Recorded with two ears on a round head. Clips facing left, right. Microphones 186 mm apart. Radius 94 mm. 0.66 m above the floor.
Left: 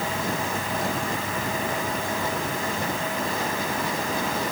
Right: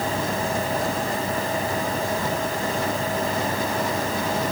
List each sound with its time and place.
Only background noise.